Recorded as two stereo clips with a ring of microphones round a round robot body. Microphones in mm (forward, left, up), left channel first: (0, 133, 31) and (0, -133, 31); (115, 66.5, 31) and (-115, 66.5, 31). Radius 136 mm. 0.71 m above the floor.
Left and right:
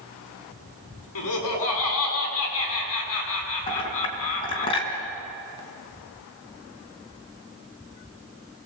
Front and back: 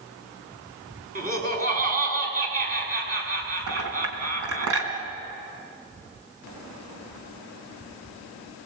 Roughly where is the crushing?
I don't hear crushing.